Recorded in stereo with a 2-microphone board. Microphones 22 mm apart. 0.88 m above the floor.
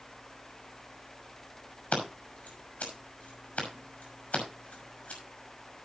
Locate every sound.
1.9 s scissors: 75° left (ahead or behind), 5.5 m